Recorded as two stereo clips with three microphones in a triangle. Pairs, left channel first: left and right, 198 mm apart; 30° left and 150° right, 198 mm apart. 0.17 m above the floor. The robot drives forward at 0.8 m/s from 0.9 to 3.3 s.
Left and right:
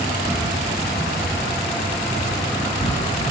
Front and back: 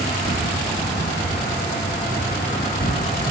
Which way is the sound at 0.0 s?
15° left.